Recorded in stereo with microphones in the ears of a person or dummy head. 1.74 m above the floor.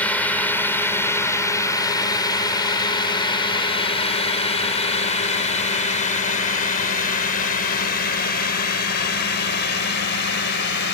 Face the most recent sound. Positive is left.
turn(degrees=60)  # may be behind; listen again after turning